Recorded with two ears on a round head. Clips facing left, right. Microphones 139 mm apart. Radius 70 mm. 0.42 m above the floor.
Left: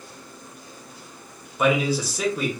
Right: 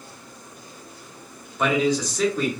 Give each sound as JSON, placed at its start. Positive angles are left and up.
{"t": 1.6, "sound": "a man speaking", "side_deg": 5, "distance_m": 0.8}